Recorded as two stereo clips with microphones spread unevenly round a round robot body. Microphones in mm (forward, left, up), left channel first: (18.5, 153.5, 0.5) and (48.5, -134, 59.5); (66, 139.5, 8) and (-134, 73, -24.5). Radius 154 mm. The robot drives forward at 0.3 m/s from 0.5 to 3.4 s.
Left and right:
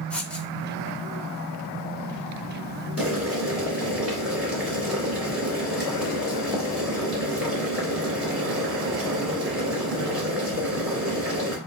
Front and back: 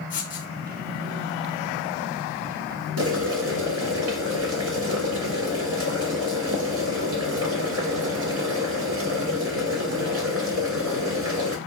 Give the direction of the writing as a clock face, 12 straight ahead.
12 o'clock.